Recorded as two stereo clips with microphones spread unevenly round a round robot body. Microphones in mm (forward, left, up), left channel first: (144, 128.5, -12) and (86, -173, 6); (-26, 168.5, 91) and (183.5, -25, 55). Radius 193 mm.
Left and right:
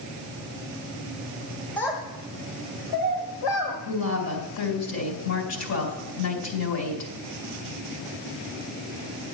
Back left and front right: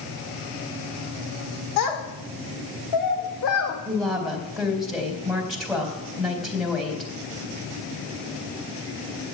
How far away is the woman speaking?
About 4 m.